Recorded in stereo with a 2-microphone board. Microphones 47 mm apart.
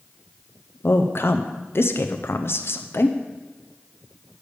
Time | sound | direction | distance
0.8 | a woman speaking | 60° left (ahead or behind) | 0.5 m